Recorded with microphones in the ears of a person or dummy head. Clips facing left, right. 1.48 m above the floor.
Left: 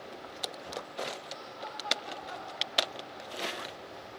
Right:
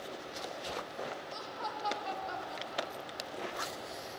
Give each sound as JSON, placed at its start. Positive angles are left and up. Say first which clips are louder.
{"t": 1.3, "sound": "laughter", "louder": "right 2 dB", "side_deg": -80, "distance_m": 1.6}